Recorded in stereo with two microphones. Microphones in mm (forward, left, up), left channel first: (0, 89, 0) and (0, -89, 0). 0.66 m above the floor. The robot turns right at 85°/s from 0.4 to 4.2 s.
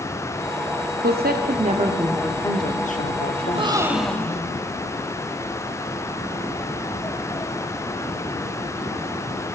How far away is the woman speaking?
About 1.0 m.